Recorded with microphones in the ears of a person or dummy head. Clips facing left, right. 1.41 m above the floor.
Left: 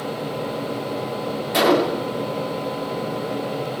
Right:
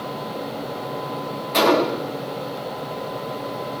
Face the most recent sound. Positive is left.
turn(degrees=15)  # may be behind; listen again after turning